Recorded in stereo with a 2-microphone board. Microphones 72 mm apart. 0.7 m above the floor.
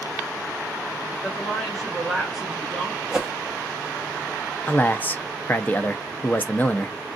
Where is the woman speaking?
Centre (ahead or behind), 2.5 m.